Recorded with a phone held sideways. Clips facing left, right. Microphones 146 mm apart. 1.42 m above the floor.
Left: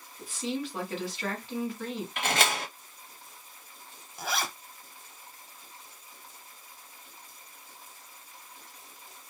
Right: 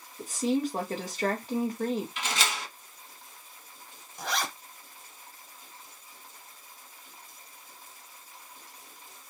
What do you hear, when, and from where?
0.2 s a woman speaking: 45° right (ahead or behind), 1.1 m
2.2 s a door slam: 55° left (ahead or behind), 0.6 m
4.2 s a zipper: 5° left (ahead or behind), 0.7 m